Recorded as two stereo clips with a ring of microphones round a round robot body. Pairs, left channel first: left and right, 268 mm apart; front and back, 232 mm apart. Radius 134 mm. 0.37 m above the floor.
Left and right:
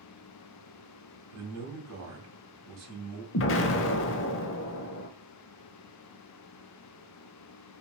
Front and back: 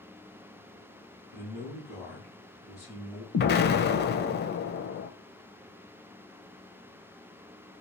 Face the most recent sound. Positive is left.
turn(degrees=45)